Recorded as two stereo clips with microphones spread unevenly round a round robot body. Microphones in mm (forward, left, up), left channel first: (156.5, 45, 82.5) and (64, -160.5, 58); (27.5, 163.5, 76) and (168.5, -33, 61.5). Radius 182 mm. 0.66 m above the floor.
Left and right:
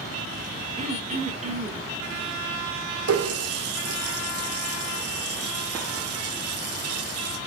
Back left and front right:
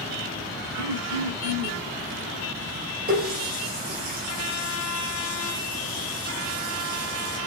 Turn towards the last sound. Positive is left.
turn(degrees=-115)